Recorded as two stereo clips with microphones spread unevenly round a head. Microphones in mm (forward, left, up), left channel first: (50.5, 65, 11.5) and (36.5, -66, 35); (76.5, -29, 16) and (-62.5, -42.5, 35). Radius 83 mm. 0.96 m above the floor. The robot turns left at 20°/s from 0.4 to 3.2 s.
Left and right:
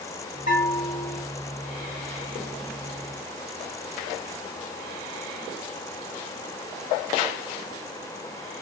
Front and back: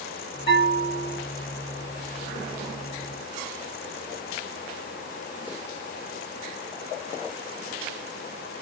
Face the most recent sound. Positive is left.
turn(degrees=5)